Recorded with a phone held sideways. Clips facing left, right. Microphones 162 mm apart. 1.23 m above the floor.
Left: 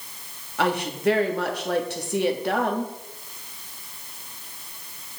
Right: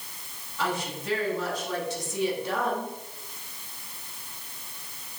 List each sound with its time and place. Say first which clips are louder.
0.6 s a woman speaking: left 7 dB; 65° left (ahead or behind), 1.7 m